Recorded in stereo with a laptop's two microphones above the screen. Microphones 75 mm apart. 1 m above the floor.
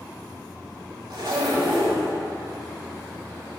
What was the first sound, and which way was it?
A zipper, 70° right (ahead or behind).